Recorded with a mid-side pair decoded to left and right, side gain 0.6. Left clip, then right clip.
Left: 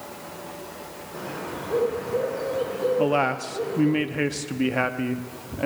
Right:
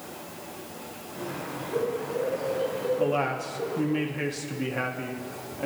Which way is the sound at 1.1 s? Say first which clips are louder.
Left 2 dB; 65° left.